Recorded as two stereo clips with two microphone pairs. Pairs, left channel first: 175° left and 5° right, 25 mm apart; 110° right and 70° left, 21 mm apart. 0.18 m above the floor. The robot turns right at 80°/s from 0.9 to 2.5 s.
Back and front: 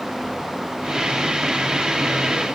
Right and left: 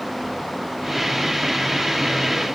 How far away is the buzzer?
I don't hear a buzzer.